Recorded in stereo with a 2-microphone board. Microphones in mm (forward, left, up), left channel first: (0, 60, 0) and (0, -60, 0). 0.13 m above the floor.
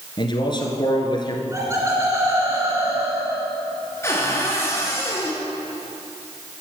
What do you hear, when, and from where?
0.2 s a man speaking: 40° left (ahead or behind), 1.7 m
1.5 s laughter: 25° right (ahead or behind), 1.8 m
4.0 s a cupboard door: 20° left (ahead or behind), 2 m